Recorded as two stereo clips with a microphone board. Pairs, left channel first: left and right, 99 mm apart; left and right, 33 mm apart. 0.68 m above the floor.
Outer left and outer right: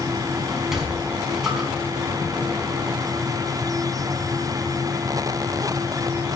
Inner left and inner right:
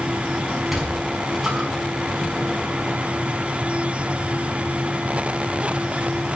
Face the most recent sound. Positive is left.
turn(degrees=-5)  # may be behind; listen again after turning